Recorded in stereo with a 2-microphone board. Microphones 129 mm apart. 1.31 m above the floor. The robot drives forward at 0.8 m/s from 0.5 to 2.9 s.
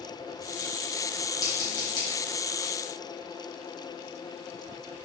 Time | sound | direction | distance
1.4 | scissors | 30° left (ahead or behind) | 2.5 m